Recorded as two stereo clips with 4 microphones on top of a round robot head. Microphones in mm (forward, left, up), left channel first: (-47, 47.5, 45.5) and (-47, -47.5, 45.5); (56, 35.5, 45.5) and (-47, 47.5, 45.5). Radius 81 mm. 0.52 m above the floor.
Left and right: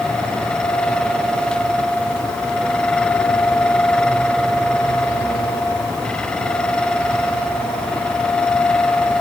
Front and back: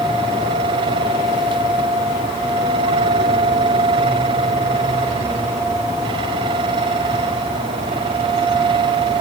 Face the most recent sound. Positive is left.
No sound to turn to.